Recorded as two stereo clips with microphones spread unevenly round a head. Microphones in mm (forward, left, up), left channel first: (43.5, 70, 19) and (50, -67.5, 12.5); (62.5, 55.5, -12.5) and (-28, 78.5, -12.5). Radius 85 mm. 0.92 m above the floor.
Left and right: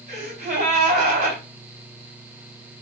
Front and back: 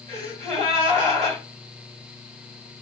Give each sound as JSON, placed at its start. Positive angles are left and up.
{"t": 0.1, "sound": "a gasp", "azimuth_deg": -140, "distance_m": 3.0}